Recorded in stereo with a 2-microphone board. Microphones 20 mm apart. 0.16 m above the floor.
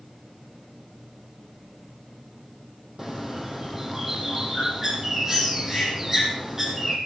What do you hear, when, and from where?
3.0 s a bird: 20° right (ahead or behind), 4 m